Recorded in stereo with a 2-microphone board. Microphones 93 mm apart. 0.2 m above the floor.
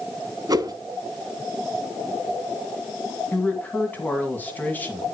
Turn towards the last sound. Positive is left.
turn(degrees=20)  # may be behind; listen again after turning